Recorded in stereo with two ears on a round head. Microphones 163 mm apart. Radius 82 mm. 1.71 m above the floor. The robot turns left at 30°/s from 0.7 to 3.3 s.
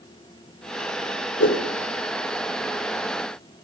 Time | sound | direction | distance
1.4 | a whoosh | 65° left (ahead or behind) | 3 m